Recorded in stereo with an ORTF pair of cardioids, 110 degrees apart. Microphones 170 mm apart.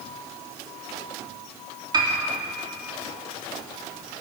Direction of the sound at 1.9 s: 25° right.